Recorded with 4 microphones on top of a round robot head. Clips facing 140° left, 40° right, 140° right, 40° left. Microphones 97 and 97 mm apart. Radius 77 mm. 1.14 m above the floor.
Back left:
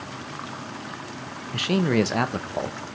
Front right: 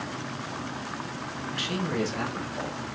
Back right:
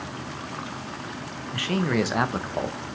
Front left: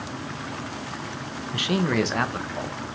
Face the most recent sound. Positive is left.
turn(degrees=175)